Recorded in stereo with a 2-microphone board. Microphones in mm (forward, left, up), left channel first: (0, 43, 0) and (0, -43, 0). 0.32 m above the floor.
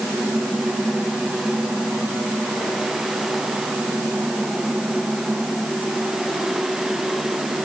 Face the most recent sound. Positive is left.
No sound to turn to.